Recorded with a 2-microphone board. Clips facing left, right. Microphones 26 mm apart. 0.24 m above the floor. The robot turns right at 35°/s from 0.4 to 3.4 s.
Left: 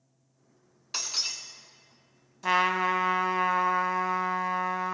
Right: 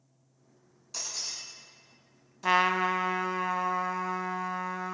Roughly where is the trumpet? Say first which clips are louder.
Even; ahead.